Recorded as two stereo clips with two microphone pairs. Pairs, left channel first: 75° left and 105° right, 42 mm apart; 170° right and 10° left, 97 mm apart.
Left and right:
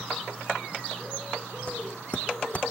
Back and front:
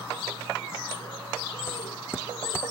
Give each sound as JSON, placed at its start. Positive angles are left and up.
{"t": 1.7, "sound": "footsteps", "azimuth_deg": 130, "distance_m": 0.9}